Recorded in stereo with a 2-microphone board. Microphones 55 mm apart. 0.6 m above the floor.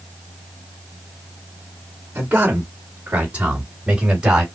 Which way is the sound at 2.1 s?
30° right (ahead or behind).